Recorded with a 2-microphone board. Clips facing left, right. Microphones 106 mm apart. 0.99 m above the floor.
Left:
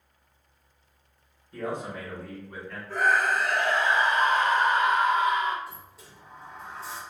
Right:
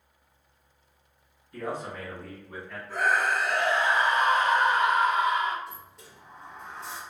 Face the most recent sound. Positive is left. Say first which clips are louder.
# even
turn(degrees=5)  # may be behind; listen again after turning